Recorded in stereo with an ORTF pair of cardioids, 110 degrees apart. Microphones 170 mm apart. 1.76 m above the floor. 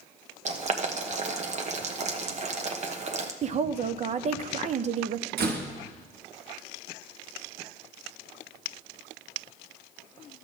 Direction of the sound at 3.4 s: 40° right.